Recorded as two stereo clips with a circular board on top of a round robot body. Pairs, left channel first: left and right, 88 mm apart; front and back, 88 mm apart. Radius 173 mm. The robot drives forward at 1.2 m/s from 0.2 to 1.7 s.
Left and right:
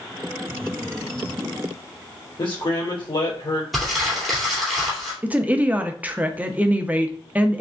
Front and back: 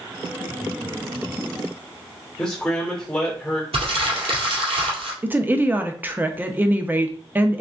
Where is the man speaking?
75° left, 2.5 m.